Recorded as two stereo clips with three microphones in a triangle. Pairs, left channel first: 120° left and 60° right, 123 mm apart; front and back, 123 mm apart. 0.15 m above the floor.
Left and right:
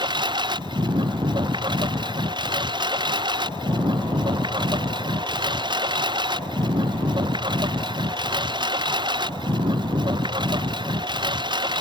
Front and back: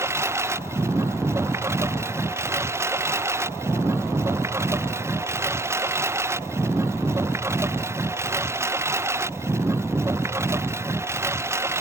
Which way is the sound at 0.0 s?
110° right.